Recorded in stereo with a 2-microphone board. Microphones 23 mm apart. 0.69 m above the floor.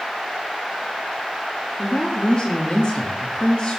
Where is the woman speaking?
40° left (ahead or behind), 1.3 m.